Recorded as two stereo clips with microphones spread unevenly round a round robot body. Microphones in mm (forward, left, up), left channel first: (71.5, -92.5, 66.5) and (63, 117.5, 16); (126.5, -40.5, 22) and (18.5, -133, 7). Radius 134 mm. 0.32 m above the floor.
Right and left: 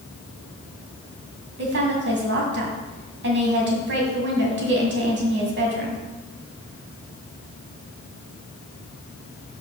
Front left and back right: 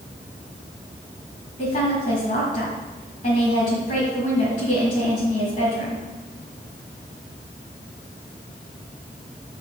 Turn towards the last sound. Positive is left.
turn(degrees=95)